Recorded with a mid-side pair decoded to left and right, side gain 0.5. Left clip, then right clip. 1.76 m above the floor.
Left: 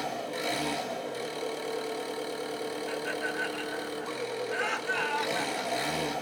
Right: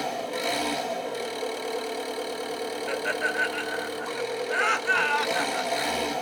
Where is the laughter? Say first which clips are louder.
Right 7 dB; 60° right, 0.8 m.